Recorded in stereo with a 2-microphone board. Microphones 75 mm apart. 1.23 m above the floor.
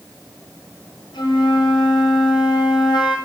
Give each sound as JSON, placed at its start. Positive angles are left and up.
{"t": 1.1, "sound": "a flute", "side_deg": 85, "distance_m": 6.5}